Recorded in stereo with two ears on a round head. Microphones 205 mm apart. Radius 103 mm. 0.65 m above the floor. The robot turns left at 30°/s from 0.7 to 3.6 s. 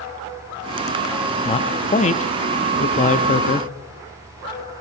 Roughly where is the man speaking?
Left.